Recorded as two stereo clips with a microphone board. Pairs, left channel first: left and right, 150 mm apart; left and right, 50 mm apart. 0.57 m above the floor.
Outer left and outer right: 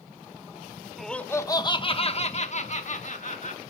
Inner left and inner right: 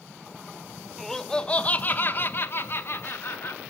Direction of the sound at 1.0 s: Centre (ahead or behind).